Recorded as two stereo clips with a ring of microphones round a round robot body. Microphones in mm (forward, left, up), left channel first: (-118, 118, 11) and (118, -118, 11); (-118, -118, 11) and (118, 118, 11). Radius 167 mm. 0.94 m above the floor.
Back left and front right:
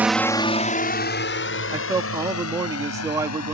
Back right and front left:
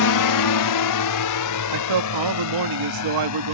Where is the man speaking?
35° left.